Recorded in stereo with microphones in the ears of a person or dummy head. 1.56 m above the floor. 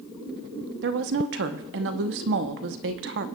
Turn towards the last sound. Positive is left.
turn(degrees=-65)  # may be behind; listen again after turning